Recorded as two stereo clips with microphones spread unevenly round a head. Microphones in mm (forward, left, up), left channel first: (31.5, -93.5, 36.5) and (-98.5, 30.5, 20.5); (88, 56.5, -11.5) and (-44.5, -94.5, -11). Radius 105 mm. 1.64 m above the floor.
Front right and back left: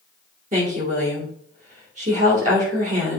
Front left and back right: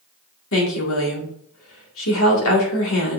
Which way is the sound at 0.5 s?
80° left.